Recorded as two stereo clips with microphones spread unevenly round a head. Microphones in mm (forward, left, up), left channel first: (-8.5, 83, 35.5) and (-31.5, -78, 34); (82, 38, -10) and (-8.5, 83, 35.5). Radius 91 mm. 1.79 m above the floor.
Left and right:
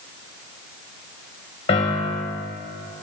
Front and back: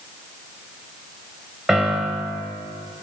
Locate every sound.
1.7 s a piano: 110° left, 1.0 m